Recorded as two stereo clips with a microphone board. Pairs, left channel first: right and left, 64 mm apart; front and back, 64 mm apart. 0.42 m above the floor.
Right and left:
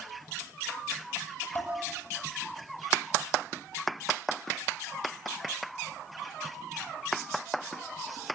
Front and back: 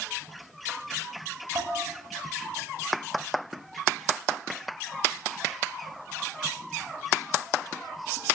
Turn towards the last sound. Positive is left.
turn(degrees=-150)